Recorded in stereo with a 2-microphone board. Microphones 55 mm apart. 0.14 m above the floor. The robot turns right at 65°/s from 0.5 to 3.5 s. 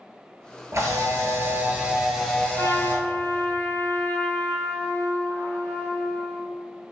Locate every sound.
0.7 s a camera shutter: 95° right, 0.8 m; by 3.0 s 55° left, 0.8 m
2.5 s a trumpet: 75° left, 1.1 m; by 6.4 s 135° left, 1.1 m